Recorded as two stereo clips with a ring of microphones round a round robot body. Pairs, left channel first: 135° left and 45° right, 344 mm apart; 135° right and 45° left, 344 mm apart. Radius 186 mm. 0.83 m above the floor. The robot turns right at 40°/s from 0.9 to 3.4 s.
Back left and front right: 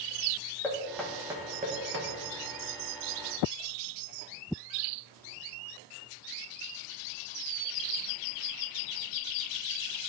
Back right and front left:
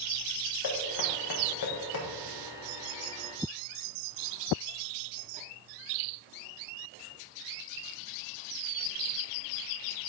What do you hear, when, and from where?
0.6 s knocking: 140° right, 1.3 m; by 2.1 s 95° right, 1.3 m